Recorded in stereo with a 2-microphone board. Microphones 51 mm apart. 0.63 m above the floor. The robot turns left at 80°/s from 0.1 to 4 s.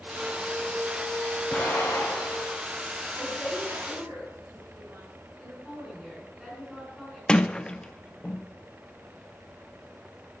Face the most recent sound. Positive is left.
turn(degrees=15)  # may be behind; listen again after turning